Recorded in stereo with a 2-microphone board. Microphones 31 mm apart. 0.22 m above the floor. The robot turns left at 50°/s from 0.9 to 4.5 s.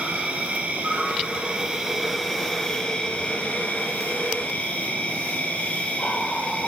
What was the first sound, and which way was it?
An insect, 110° right.